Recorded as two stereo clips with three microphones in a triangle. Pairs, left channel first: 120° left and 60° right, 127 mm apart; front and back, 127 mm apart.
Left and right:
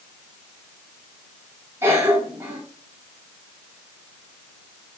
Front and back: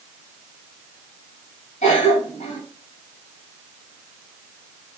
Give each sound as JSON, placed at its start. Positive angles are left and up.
{"t": 1.8, "sound": "a cough", "azimuth_deg": 10, "distance_m": 2.5}